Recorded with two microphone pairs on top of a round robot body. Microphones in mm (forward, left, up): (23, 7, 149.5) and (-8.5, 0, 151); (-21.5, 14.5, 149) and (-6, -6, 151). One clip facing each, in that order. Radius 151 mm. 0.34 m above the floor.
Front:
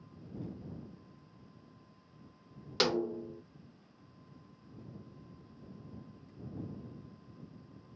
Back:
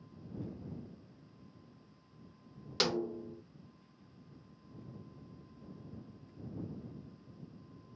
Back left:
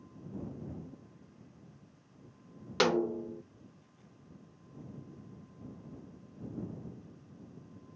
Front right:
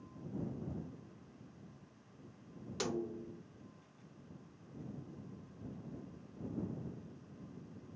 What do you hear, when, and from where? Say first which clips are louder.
2.8 s a snare drum: front 3 dB, back left 11 dB; 90° left